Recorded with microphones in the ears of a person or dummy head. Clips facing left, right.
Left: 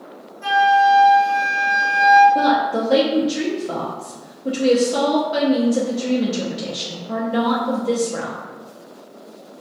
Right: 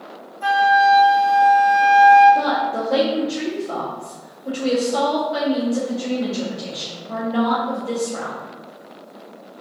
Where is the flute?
65° right (ahead or behind), 1.1 m.